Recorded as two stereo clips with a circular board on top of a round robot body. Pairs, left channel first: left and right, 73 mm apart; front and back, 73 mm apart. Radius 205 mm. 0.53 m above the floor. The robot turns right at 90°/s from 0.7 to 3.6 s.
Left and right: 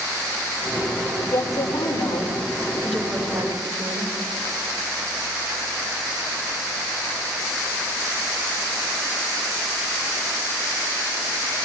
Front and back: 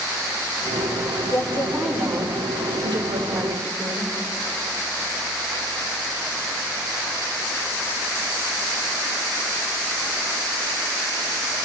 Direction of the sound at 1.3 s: 40° left.